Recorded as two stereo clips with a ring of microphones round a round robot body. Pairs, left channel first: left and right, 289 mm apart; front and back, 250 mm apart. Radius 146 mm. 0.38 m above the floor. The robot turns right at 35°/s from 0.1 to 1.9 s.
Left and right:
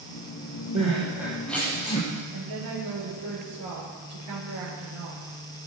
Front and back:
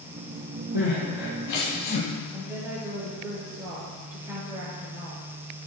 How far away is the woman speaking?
About 8.5 m.